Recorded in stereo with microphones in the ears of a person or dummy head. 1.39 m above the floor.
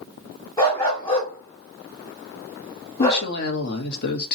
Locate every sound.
0.6 s a dog barking: 20° left (ahead or behind), 1.9 m
3.0 s a woman speaking: 55° left (ahead or behind), 1.2 m